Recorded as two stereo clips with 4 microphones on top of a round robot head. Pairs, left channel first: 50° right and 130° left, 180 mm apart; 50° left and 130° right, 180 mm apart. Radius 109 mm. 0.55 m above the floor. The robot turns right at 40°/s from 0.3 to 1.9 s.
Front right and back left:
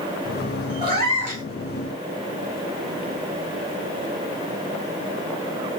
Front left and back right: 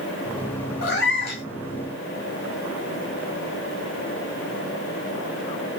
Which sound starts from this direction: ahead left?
A cat meowing, at 0.8 s.